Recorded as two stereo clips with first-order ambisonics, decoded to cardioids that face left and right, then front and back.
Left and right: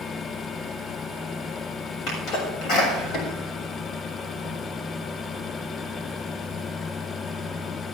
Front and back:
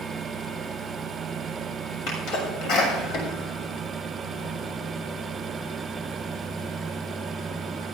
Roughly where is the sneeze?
Ahead left.